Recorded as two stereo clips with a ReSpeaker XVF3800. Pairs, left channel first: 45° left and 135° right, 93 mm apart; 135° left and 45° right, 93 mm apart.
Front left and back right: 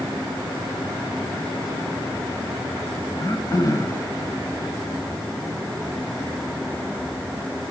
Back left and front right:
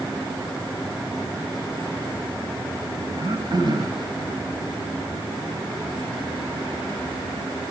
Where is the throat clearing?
5° right, 1.6 m.